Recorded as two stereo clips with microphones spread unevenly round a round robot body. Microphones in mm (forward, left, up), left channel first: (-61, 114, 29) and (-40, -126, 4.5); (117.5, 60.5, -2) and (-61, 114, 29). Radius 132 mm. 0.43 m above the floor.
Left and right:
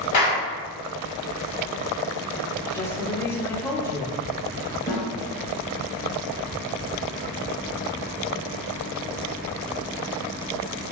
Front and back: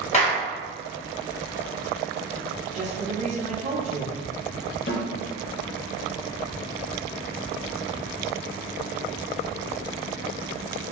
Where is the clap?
35° left, 1.8 m.